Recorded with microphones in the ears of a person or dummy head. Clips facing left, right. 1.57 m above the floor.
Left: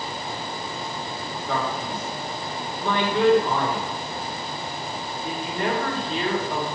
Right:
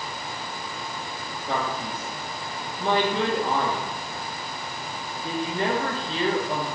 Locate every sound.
1.5 s a man speaking: 25° right (ahead or behind), 2.5 m